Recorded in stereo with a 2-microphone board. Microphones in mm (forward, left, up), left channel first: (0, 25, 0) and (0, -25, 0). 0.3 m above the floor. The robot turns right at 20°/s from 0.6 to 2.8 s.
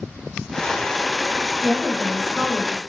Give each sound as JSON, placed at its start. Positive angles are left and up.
{"t": 1.6, "sound": "a woman speaking", "side_deg": -20, "distance_m": 1.1}